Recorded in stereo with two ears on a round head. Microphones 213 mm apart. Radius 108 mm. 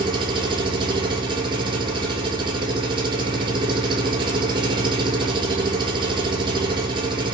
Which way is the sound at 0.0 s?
20° right (ahead or behind).